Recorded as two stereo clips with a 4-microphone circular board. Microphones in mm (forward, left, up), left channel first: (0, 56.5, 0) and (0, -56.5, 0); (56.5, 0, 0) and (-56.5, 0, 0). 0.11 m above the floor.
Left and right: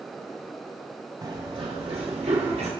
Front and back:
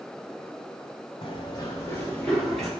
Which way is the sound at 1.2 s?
40° right.